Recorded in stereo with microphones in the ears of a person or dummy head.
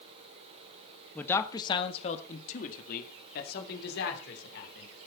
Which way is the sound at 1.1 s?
10° left (ahead or behind).